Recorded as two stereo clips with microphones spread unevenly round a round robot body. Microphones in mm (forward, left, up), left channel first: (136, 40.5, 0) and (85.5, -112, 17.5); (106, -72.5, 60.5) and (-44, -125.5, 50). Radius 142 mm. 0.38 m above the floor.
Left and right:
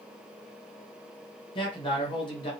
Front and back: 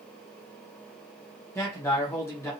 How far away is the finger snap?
I don't hear a finger snap.